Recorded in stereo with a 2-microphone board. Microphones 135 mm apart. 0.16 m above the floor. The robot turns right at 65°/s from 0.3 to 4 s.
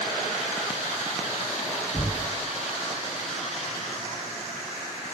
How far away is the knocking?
About 0.8 m.